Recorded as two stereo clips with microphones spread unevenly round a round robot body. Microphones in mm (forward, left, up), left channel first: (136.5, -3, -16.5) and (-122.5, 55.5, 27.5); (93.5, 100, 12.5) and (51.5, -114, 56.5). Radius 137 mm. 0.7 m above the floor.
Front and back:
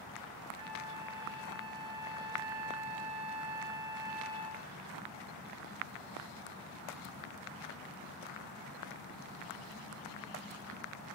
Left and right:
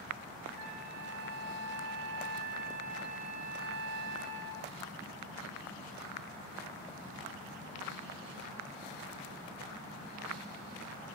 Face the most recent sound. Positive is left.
turn(degrees=-120)